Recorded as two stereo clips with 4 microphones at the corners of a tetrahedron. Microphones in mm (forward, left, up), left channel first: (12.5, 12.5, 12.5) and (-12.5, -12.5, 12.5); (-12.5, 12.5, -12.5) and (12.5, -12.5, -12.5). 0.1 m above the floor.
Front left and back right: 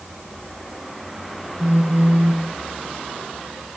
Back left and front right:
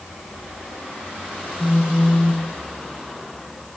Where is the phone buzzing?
115° right, 1.9 m.